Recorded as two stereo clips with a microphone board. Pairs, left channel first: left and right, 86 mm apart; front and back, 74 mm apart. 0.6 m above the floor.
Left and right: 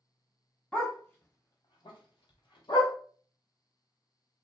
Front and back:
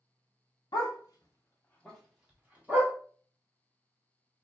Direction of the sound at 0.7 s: 10° left.